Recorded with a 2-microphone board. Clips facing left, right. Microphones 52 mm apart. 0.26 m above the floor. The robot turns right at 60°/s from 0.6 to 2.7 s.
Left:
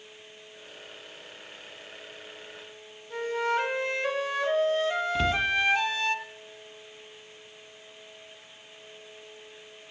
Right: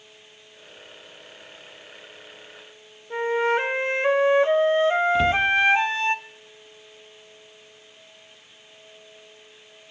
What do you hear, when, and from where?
3.1 s a flute: 30° right (ahead or behind), 0.7 m
5.2 s a cupboard door: 5° right (ahead or behind), 1.2 m